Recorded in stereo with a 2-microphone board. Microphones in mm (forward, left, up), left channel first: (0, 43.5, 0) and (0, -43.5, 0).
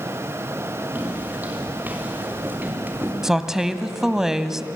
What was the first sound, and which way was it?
Footsteps, 15° right (ahead or behind).